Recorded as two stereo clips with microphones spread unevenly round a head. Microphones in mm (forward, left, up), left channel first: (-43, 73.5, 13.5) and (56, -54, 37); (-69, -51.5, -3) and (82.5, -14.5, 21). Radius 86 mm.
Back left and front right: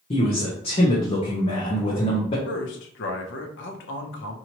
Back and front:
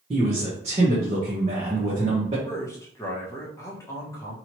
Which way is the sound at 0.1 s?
70° left.